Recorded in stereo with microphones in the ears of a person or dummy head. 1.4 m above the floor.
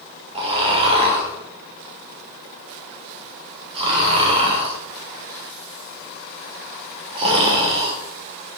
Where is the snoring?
30° right (ahead or behind), 1.0 m.